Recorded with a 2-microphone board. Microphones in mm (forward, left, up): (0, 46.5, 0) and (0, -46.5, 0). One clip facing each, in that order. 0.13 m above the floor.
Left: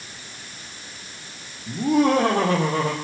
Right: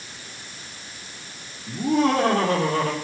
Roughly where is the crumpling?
I don't hear crumpling.